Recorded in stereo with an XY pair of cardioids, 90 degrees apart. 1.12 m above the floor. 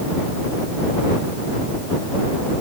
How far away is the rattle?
I don't hear a rattle.